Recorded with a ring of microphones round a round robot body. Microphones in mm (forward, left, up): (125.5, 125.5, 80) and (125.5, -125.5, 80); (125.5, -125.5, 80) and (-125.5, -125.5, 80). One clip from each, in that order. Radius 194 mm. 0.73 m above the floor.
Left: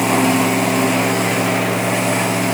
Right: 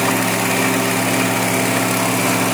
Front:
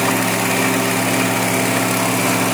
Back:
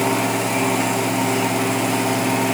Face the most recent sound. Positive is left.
No sound to turn to.